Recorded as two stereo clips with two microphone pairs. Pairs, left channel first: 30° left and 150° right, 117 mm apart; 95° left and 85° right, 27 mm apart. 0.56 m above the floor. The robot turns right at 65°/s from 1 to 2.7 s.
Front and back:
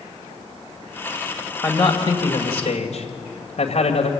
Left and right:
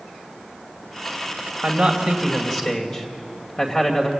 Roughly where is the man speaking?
Ahead right.